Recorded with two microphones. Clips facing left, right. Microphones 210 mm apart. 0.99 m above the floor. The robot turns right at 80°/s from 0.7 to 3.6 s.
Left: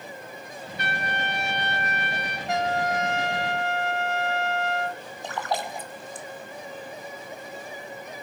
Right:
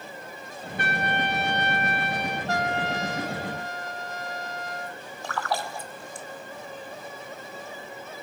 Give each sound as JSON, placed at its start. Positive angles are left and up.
{"t": 0.8, "sound": "a trumpet", "azimuth_deg": -50, "distance_m": 5.0}
{"t": 2.5, "sound": "a trumpet", "azimuth_deg": 15, "distance_m": 0.9}
{"t": 5.2, "sound": "a splash", "side_deg": 20, "distance_m": 1.1}